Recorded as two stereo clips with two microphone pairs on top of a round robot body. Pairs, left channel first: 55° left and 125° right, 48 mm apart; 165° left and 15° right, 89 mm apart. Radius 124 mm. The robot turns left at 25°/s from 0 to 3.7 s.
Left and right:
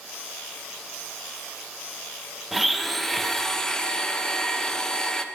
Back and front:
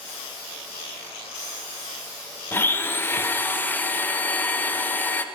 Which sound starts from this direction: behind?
A blender, at 2.5 s.